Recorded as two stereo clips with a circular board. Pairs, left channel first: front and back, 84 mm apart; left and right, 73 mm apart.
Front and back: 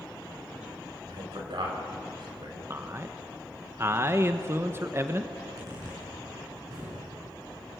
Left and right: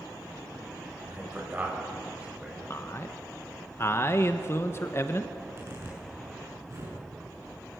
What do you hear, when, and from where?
1.1 s a man speaking: 155° right, 6 m; by 2.6 s 160° right, 7 m
2.7 s a man speaking: 130° left, 1.1 m
5.3 s a zipper: 140° right, 8 m